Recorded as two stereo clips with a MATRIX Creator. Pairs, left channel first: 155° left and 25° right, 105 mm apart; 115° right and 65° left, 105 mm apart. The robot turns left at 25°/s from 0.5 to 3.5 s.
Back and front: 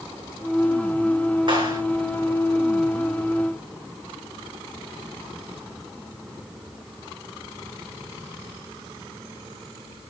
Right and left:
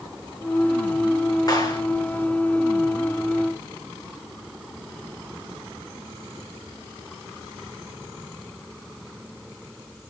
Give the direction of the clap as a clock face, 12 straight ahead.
2 o'clock.